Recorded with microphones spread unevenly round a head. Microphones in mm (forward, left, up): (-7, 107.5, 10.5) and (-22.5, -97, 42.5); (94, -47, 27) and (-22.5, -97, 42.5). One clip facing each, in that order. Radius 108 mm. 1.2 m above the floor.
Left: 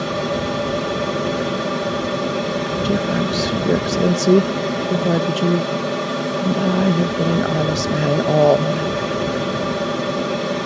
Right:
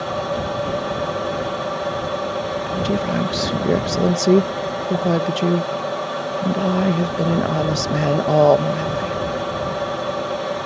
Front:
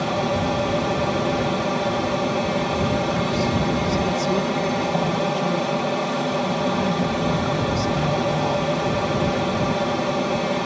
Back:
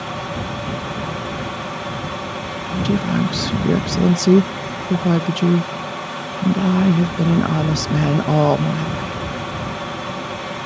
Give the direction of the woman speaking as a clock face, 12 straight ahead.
6 o'clock.